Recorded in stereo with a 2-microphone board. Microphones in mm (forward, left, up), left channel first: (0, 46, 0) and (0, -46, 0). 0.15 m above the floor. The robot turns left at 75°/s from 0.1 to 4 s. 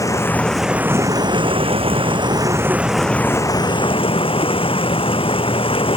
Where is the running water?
35° left; by 6.0 s 105° left.